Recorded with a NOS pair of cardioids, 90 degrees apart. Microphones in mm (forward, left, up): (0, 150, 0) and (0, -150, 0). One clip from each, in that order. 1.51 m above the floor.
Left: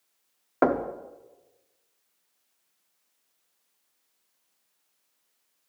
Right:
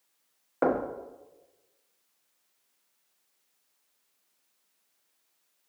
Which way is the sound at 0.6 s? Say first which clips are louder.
Left 3 dB; 30° left.